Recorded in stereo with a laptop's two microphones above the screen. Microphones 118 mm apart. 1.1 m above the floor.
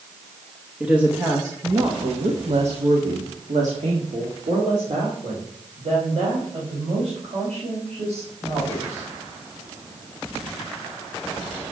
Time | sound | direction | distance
0.8 | a woman speaking | 5° right (ahead or behind) | 1.2 m